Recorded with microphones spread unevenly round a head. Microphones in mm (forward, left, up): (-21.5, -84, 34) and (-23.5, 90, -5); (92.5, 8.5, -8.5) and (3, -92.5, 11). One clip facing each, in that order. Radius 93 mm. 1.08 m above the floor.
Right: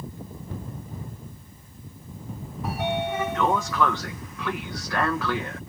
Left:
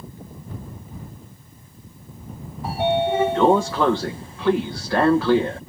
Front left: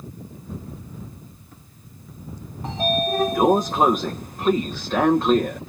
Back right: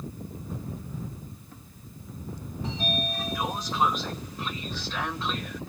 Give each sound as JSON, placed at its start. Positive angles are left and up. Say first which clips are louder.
{"t": 2.6, "sound": "a sliding door", "louder": "left 7 dB, front left 9 dB", "azimuth_deg": 50}